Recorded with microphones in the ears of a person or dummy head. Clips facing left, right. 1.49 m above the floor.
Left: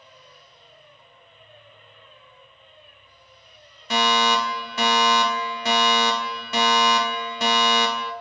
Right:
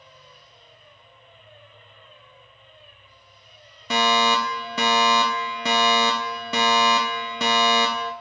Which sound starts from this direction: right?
A fire alarm, at 3.9 s.